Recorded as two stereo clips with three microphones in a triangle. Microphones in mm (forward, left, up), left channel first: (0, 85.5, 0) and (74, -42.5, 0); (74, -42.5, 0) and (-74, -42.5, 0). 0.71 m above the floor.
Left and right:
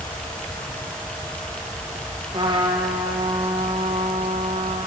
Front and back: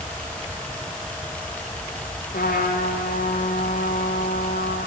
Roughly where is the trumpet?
Ahead.